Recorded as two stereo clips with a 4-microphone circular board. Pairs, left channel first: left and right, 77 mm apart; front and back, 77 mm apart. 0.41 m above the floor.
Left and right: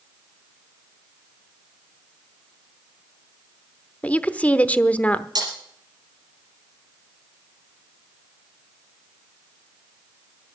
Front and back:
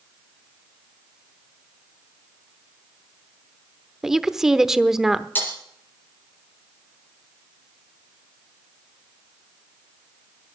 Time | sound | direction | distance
4.0 | a woman speaking | 110° left | 0.8 m
5.3 | breaking glass | 65° right | 5 m